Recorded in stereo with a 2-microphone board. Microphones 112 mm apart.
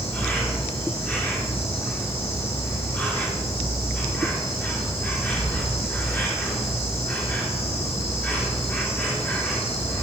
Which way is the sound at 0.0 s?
20° left (ahead or behind).